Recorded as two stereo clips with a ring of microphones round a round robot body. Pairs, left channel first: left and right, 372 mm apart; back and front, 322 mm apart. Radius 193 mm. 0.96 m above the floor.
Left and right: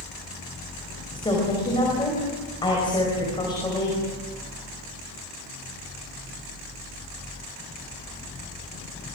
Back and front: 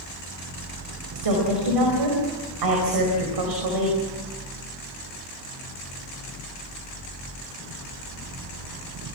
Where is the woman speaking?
10° left, 5 m.